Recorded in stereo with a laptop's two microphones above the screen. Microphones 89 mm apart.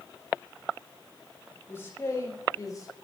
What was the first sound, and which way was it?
A man speaking, 25° left (ahead or behind).